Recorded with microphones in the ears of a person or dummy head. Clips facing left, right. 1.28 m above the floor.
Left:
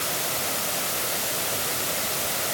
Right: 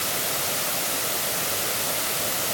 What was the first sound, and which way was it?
Only background noise.